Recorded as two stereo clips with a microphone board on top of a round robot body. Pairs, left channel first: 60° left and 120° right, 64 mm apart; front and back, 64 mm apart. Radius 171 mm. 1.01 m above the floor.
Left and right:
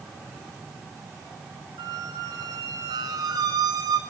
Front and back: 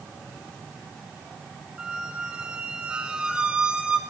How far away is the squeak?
About 0.8 m.